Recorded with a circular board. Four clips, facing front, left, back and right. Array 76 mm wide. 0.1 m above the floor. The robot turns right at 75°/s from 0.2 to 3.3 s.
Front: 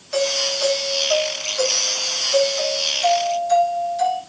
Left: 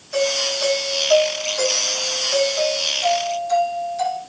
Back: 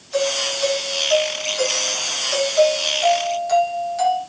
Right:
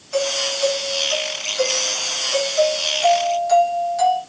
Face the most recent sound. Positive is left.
turn(degrees=-135)